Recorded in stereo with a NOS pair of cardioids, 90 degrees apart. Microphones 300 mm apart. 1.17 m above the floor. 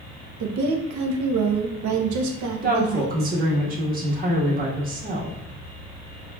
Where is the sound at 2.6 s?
30° right, 1.4 m.